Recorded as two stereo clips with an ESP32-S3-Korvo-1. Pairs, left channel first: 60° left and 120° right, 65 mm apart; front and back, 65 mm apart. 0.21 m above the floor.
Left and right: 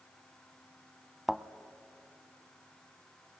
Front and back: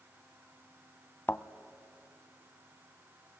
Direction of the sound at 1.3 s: 35° right.